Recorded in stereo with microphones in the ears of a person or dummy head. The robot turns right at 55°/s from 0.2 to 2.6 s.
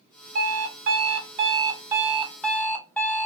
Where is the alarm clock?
115° right, 1.0 m; by 3.3 s 10° left, 1.0 m.